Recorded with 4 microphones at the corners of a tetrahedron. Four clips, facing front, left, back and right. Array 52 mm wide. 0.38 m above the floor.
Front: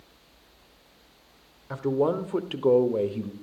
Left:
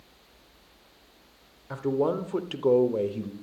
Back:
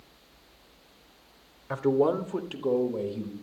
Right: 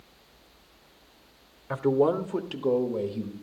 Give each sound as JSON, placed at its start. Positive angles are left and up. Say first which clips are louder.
{"t": 1.7, "sound": "a man speaking", "louder": "right 3 dB, back 1 dB", "azimuth_deg": -125, "distance_m": 0.8}